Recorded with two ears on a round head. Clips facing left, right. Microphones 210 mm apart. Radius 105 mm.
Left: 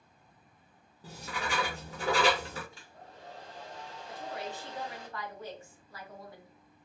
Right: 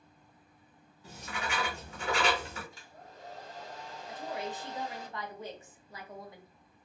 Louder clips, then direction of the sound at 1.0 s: Left 2 dB; 30° left (ahead or behind).